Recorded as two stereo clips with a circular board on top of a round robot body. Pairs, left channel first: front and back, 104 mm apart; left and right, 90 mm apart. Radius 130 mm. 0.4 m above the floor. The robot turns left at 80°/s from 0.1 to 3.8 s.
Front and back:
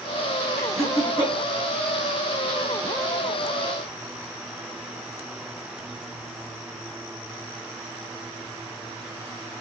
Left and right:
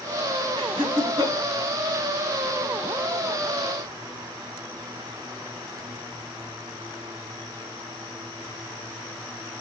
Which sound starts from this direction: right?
Laughter, at 0.6 s.